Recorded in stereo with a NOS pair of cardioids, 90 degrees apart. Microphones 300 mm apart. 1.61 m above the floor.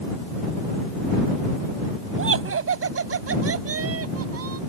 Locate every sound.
2.2 s laughter: 45° right; by 4.6 s 50° right